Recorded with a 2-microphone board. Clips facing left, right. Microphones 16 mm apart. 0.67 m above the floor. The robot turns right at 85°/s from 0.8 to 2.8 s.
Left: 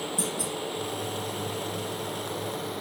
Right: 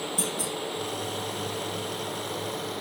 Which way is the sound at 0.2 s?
80° right.